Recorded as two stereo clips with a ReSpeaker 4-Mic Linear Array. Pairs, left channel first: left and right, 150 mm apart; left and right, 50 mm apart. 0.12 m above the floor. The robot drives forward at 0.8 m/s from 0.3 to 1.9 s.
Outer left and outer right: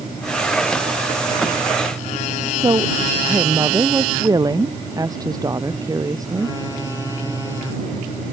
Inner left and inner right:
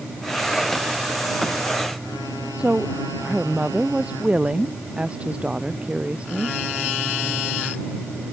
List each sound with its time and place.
2.6 s a woman speaking: 25° right (ahead or behind)